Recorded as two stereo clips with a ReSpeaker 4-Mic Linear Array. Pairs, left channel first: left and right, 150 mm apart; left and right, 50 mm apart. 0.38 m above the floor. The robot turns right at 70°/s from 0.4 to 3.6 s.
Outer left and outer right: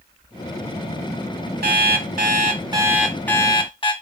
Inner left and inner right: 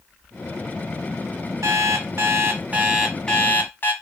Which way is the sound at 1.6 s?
105° right.